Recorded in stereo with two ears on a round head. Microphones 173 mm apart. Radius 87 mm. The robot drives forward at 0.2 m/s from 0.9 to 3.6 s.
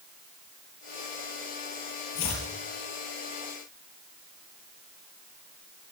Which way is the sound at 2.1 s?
75° left (ahead or behind).